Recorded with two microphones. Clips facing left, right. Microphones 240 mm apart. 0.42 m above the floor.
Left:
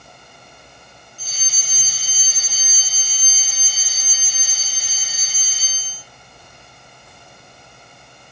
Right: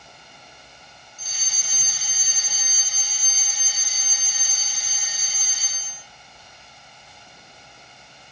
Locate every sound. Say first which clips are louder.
1.2 s a fire alarm: left 3 dB; 35° left (ahead or behind), 9.5 m